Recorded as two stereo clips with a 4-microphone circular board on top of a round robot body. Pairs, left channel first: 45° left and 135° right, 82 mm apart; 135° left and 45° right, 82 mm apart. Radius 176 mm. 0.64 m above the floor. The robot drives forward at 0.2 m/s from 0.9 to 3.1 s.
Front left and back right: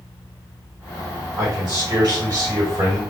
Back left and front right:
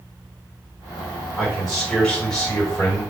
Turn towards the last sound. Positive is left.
turn(degrees=-155)